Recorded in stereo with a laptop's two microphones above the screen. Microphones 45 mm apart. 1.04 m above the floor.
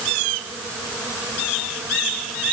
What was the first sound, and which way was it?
Only background noise.